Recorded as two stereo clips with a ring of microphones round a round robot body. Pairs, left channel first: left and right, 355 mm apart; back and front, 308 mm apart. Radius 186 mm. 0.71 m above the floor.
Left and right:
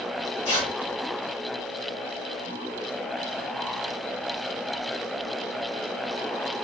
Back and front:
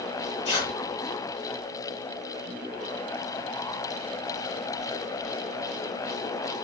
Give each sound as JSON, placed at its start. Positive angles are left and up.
{"t": 0.5, "sound": "tearing paper", "azimuth_deg": 140, "distance_m": 8.0}